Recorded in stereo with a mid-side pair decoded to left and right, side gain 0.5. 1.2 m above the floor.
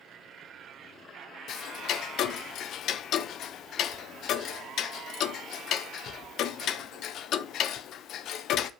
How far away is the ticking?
About 0.6 m.